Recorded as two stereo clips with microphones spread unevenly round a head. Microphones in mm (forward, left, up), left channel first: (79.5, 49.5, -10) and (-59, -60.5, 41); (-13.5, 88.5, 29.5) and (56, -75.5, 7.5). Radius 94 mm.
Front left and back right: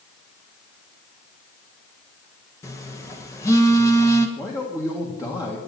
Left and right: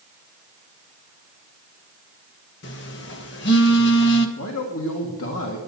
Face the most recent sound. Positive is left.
turn(degrees=115)